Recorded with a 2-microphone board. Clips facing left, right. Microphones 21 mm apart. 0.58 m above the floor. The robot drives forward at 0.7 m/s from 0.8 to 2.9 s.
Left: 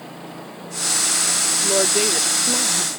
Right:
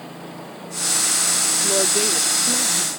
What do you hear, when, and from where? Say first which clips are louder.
1.6 s a woman speaking: left 2 dB; 10° left (ahead or behind); by 2.9 s 15° left (ahead or behind)